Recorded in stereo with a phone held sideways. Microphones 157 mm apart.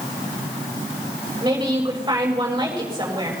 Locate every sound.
1.4 s a woman speaking: 25° right (ahead or behind), 7.5 m